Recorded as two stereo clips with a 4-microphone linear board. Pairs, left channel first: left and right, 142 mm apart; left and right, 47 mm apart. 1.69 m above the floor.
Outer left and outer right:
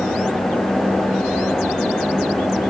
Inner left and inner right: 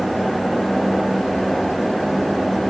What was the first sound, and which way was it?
Only background noise.